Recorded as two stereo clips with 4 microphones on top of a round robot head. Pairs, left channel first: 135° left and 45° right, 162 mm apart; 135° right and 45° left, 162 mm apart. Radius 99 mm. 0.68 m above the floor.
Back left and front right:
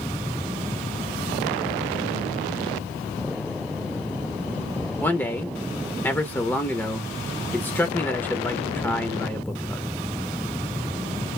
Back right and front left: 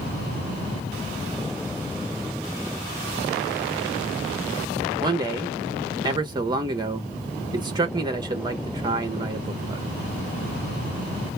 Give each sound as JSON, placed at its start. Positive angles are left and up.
{"t": 5.0, "sound": "a man speaking", "azimuth_deg": 70, "distance_m": 0.8}